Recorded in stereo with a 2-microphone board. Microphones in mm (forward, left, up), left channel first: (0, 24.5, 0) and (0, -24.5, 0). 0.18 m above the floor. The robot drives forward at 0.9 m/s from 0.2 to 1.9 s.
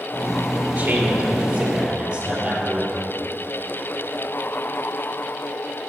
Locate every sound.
0.8 s a man speaking: 25° right (ahead or behind), 2.5 m; by 3.1 s 20° right (ahead or behind), 3.5 m